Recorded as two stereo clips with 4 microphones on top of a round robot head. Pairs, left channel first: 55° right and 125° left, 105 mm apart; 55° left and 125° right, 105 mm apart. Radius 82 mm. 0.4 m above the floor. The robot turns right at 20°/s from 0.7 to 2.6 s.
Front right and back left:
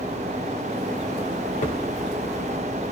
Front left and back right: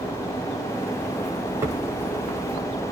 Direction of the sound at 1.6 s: 60° right.